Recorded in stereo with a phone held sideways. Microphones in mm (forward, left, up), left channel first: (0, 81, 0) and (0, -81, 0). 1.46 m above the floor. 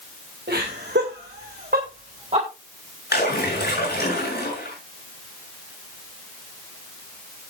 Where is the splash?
75° left (ahead or behind), 8 m.